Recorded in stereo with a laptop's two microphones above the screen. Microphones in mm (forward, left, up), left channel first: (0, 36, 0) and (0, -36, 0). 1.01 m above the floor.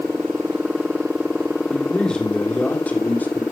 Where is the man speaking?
5° left (ahead or behind), 3 m; by 3.4 s 25° left (ahead or behind), 4 m.